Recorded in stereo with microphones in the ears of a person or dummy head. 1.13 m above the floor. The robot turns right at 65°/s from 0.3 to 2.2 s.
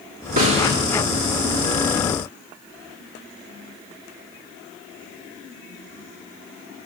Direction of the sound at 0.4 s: 45° right (ahead or behind).